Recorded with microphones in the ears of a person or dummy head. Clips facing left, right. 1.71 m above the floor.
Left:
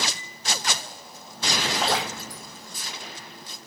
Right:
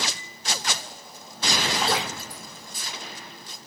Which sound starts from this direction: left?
Dripping, at 1.8 s.